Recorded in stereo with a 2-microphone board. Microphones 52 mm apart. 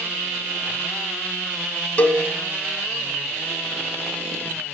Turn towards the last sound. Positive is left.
turn(degrees=35)  # may be behind; listen again after turning